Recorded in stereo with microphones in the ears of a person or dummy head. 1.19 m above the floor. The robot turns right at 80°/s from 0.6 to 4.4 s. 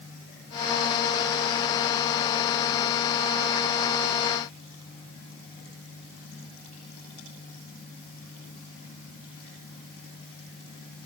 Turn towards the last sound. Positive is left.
No sound to turn to.